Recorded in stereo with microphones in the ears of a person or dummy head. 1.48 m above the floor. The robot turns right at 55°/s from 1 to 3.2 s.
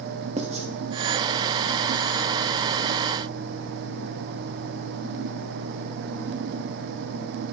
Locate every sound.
0.4 s writing: 30° right (ahead or behind), 0.8 m